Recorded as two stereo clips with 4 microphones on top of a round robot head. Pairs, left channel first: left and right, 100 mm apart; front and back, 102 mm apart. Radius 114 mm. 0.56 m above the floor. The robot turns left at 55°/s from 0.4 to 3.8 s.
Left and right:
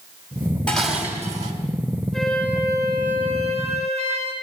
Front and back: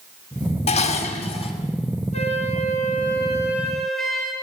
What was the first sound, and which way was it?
Dishes clattering, 10° left.